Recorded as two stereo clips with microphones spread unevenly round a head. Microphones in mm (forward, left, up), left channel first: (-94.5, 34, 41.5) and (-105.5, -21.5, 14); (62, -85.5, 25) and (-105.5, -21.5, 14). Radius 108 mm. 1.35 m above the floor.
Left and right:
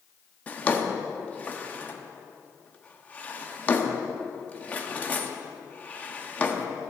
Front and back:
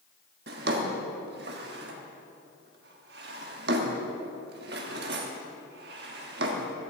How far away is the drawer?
About 1.2 m.